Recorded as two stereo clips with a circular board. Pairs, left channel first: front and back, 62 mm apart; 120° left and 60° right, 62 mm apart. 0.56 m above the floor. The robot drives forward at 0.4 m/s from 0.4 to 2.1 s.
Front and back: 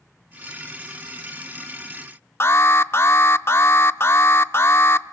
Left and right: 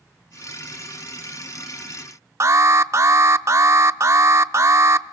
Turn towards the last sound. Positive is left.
turn(degrees=-35)